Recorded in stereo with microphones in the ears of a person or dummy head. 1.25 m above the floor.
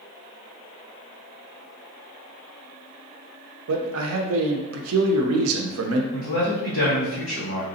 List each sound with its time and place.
3.7 s a man speaking: 75° right (ahead or behind), 0.5 m
6.1 s a man speaking: 55° left (ahead or behind), 1.8 m